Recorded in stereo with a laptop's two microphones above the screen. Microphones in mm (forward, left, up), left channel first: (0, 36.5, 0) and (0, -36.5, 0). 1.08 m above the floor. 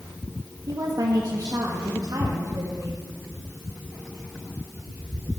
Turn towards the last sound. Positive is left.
turn(degrees=-55)  # may be behind; listen again after turning